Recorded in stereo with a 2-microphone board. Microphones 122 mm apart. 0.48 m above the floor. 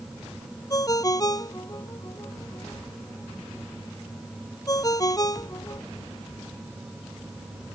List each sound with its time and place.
0.7 s a ringtone: 30° left (ahead or behind)